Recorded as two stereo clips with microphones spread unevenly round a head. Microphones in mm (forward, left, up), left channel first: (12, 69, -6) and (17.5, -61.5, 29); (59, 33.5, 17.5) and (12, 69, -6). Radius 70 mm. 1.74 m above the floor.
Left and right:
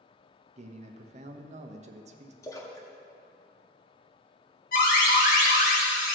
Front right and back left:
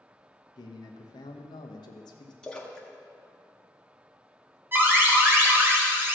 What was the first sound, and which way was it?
A man speaking, 50° right.